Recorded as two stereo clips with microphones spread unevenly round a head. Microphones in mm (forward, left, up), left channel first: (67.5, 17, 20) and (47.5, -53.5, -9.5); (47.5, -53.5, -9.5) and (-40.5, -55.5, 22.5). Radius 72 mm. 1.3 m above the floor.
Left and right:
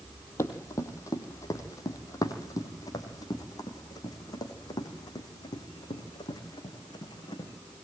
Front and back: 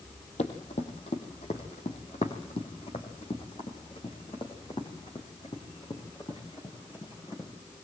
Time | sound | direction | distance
0.4 | running footsteps | 45° left | 3 m